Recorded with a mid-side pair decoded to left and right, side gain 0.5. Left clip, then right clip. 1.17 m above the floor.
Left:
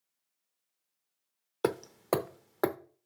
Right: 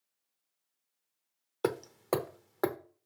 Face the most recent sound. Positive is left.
turn(degrees=15)